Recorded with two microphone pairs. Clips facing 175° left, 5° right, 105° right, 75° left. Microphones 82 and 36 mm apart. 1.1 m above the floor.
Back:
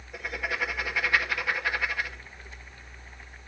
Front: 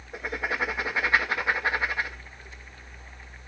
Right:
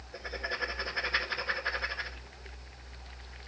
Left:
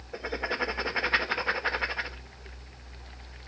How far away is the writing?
About 1.7 m.